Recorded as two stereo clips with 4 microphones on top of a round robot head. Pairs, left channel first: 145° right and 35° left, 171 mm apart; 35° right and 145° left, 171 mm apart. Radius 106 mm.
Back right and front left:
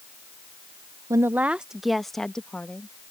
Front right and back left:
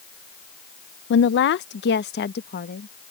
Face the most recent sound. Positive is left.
turn(degrees=-65)